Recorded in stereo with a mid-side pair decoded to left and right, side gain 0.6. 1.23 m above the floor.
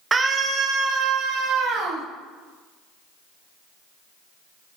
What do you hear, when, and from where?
0.1 s a scream: 20° right, 0.9 m; by 2.0 s 75° right, 2.5 m